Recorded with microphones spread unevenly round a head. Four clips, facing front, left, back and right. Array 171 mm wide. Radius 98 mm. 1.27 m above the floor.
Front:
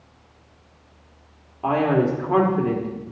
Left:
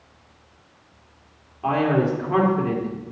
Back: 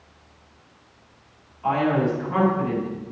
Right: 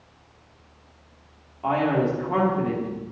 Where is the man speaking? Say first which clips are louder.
Left 2 dB, front 2 dB; straight ahead, 3 m.